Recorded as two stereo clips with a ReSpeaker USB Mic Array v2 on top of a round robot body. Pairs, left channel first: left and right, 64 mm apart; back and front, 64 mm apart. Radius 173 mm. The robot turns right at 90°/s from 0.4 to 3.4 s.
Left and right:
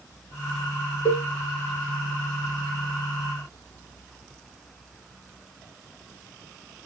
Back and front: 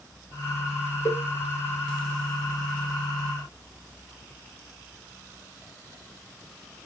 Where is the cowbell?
120° left, 3.5 m; by 1.3 s 140° left, 3.5 m.